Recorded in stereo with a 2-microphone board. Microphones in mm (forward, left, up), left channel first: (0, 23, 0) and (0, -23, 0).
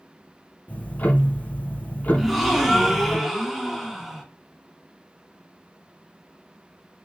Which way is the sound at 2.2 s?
Centre (ahead or behind).